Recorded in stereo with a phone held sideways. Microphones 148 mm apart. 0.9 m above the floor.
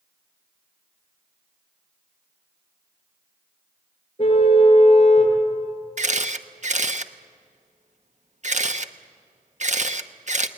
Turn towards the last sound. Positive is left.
turn(degrees=-55)  # may be behind; listen again after turning